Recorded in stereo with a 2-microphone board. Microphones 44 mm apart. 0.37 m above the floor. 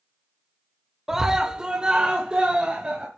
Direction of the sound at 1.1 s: 10° right (ahead or behind).